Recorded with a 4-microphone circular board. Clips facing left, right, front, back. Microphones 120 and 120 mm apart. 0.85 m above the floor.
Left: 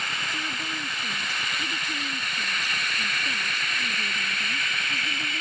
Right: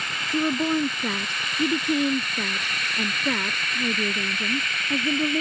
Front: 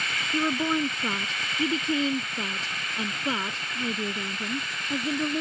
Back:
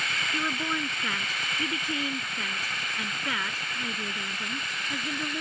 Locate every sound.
0.3 s a woman speaking: 65° right